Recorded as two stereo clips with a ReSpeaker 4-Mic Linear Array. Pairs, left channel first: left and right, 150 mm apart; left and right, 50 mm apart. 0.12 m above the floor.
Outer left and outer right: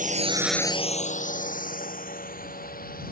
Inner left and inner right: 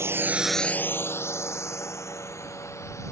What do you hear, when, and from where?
0.0 s a drone: 60° right (ahead or behind); by 3.1 s 70° left (ahead or behind)